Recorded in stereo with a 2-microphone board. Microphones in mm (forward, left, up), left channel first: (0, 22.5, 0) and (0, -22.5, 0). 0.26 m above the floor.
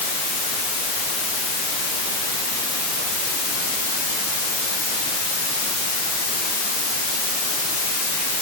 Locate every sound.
Only background noise.